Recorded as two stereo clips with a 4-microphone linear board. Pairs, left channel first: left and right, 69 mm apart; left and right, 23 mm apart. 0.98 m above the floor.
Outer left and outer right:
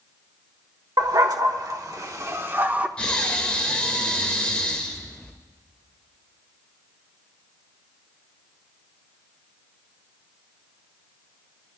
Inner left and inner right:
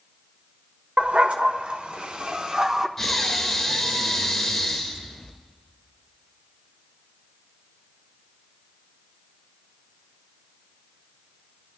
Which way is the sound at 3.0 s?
15° left (ahead or behind).